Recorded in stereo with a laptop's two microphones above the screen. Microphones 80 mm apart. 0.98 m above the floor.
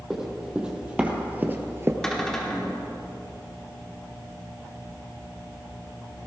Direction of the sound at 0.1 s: 5° right (ahead or behind).